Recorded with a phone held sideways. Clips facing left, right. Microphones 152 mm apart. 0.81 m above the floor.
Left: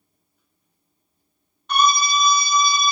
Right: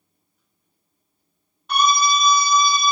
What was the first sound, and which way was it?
A scream, 5° right (ahead or behind).